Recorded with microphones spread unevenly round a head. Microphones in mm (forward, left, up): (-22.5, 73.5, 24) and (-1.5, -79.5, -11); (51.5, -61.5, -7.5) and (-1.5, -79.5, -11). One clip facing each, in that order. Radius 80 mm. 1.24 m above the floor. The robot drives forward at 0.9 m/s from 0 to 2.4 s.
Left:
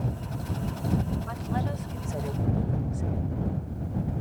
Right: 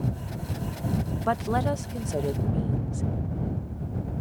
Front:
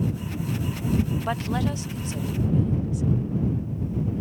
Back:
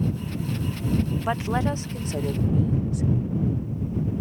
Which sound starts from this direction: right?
A woman speaking, at 1.2 s.